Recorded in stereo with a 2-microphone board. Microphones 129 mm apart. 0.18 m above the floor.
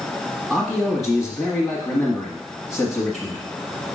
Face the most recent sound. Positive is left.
turn(degrees=0)  # may be behind; listen again after turning